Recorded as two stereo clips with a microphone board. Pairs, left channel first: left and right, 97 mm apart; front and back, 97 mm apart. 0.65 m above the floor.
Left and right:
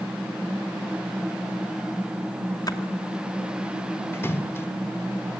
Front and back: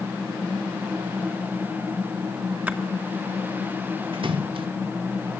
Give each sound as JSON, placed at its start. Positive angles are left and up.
{"t": 2.7, "sound": "a splash", "azimuth_deg": 115, "distance_m": 1.6}
{"t": 4.1, "sound": "a splash", "azimuth_deg": 155, "distance_m": 1.0}